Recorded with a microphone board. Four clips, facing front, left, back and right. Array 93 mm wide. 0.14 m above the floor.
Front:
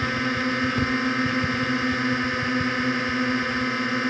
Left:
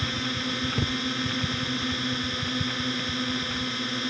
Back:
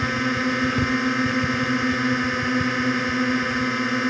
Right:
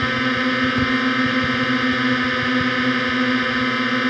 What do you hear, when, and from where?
0.0 s a drone: 100° right